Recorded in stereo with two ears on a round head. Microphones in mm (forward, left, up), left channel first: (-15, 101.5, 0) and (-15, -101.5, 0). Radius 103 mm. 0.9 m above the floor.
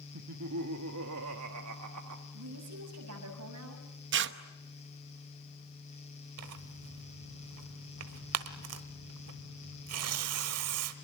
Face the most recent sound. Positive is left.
turn(degrees=-70)  # may be behind; listen again after turning